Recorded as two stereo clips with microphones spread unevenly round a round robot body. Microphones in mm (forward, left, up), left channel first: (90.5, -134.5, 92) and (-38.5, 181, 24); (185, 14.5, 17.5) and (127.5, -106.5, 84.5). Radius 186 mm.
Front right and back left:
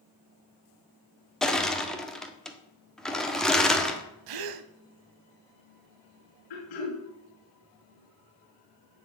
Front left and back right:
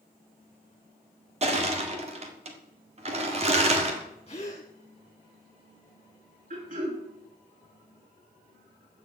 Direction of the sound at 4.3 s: 145° left.